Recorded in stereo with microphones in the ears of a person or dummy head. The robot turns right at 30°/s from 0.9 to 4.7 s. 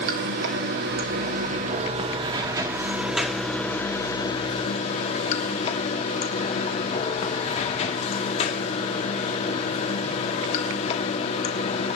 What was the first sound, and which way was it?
Running water, 75° right.